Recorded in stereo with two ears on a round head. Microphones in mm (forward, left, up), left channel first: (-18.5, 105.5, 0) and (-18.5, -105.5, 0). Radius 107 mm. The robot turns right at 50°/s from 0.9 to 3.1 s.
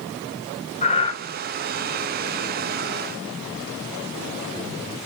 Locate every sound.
0.8 s breathing: 30° left (ahead or behind), 2 m; by 1.2 s 15° left (ahead or behind), 2 m